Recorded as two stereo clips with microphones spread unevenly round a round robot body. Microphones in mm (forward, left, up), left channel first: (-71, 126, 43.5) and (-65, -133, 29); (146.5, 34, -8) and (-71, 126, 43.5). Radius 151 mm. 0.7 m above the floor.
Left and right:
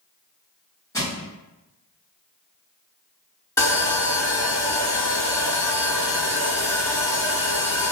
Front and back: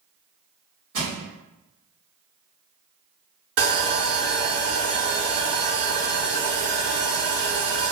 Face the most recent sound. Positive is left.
turn(degrees=170)